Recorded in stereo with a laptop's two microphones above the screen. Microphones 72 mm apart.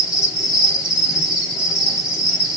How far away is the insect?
About 2.5 m.